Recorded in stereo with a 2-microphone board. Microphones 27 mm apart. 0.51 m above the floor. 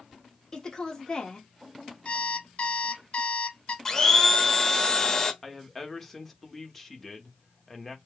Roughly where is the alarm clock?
Left.